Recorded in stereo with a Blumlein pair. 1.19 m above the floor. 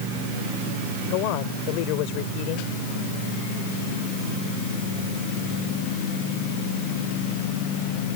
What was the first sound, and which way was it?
A man speaking, 45° left.